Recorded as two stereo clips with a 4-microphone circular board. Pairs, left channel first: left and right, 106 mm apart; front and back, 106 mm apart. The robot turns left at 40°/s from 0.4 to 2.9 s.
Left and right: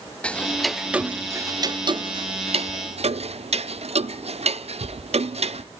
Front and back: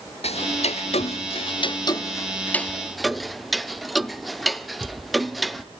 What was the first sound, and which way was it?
Ticking, 10° left.